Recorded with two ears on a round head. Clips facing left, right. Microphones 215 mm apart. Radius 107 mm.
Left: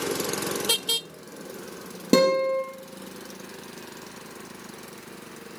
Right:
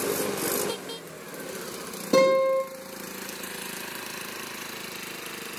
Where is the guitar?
65° left (ahead or behind), 5 m.